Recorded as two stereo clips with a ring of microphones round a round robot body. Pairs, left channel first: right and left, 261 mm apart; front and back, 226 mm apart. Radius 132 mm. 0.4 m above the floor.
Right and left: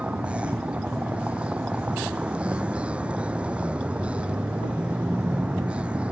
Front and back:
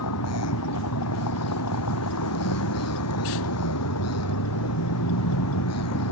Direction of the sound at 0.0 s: 5° left.